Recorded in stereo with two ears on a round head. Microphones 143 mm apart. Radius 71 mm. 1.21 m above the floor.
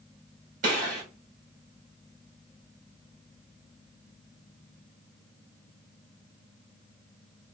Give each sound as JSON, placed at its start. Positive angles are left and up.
{"t": 0.6, "sound": "a gunshot", "side_deg": -55, "distance_m": 3.0}